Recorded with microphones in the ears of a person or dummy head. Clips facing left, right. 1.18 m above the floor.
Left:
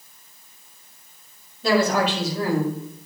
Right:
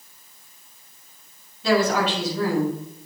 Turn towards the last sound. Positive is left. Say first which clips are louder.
# even
turn(degrees=45)  # may be behind; listen again after turning